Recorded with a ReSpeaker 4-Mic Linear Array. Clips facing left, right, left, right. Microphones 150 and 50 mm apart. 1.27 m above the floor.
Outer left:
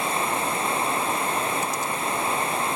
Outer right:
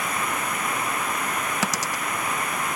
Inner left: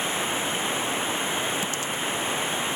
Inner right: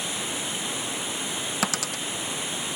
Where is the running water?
25° left (ahead or behind).